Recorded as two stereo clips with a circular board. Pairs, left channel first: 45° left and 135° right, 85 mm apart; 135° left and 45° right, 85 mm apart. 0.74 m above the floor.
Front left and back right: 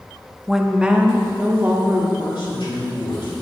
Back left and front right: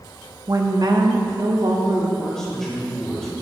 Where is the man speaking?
50° left, 4 m.